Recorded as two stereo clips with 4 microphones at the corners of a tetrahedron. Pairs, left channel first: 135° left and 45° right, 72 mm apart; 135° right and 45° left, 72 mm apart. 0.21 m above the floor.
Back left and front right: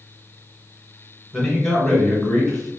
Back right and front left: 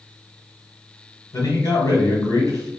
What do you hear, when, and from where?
1.3 s a man speaking: 140° right, 2 m